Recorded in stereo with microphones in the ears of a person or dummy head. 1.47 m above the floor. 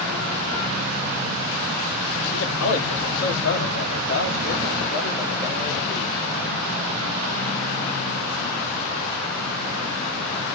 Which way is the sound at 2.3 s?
75° left (ahead or behind).